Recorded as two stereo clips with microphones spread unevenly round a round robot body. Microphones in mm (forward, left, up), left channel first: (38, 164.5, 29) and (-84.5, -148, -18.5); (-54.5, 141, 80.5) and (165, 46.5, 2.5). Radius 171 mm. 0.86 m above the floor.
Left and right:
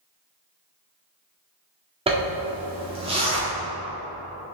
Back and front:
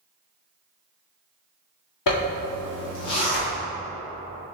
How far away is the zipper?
About 1.9 m.